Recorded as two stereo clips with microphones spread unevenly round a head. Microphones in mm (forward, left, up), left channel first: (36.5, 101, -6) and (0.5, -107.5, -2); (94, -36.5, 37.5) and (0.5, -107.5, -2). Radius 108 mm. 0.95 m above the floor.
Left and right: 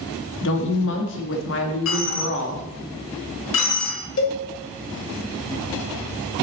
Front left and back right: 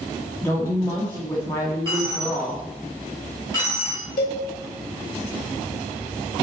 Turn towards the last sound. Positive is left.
turn(degrees=55)